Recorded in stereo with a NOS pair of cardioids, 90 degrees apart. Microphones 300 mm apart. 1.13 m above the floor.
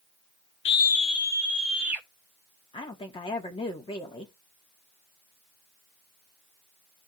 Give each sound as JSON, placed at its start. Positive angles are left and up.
{"t": 0.7, "sound": "a scream", "azimuth_deg": 40, "distance_m": 0.5}
{"t": 2.7, "sound": "a woman speaking", "azimuth_deg": 15, "distance_m": 2.0}